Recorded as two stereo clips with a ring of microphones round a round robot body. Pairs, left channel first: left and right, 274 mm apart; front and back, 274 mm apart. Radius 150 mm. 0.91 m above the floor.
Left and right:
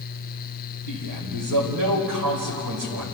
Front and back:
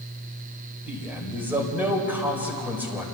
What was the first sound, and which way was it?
A man speaking, 95° right.